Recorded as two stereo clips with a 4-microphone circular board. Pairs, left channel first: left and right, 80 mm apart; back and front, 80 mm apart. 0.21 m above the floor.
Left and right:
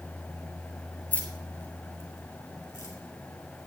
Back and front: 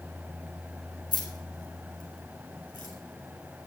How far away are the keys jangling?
About 3 m.